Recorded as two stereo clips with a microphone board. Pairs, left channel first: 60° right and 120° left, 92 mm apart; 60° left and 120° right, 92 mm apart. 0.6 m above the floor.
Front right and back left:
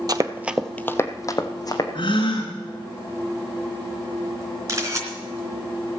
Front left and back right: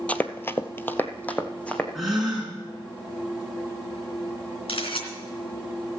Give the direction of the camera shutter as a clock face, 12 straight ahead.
10 o'clock.